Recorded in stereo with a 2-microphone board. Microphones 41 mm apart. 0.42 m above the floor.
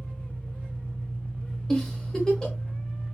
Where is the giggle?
10° left (ahead or behind), 0.9 m.